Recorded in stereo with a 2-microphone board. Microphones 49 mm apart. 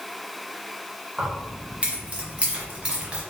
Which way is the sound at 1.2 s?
20° right (ahead or behind).